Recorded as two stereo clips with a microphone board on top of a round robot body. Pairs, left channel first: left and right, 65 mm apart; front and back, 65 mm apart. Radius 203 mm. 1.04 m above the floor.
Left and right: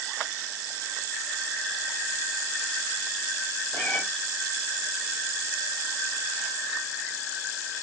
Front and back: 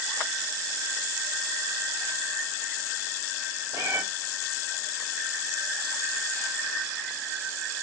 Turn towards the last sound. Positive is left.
turn(degrees=150)